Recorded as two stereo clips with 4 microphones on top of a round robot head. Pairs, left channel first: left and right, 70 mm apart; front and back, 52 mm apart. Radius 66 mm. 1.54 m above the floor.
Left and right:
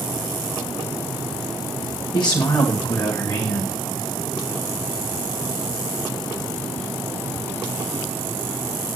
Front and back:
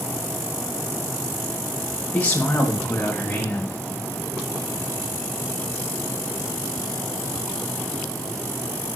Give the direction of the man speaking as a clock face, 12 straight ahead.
10 o'clock.